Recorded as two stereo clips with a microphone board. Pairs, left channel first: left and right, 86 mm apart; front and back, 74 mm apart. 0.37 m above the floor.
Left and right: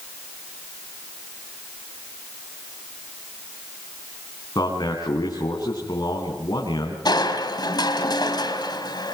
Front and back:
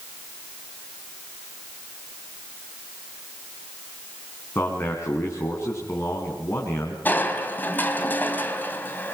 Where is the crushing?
60° left, 3 m.